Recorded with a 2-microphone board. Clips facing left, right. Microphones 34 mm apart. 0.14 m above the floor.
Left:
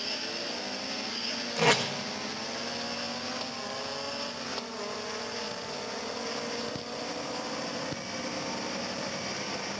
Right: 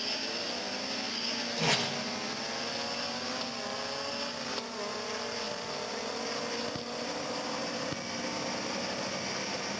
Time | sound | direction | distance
1.6 | tape being pulled | 75° left (ahead or behind) | 1.7 m